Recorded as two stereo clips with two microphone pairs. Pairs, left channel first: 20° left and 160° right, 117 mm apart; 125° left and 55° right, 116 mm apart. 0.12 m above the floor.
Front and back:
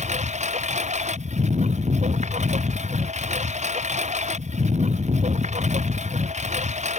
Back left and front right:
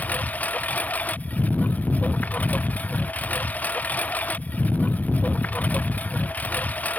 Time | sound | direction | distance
0.0 | a lawn mower | 155° right | ?